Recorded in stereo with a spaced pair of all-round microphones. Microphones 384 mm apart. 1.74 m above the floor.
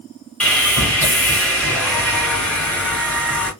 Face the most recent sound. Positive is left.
turn(degrees=5)  # may be behind; listen again after turning